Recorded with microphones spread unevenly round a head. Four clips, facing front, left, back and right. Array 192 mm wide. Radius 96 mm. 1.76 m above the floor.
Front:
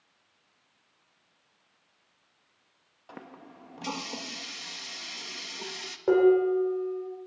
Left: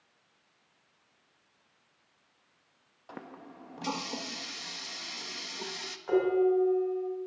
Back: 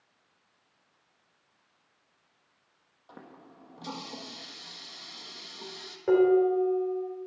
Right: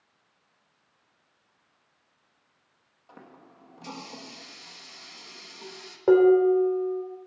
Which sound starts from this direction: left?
A running tap, at 3.1 s.